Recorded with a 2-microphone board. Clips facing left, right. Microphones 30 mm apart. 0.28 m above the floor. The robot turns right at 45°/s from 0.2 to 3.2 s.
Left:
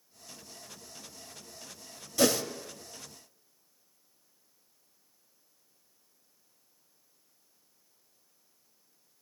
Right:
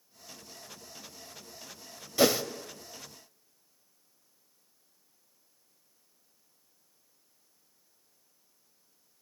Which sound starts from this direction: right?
A whoosh, at 2.2 s.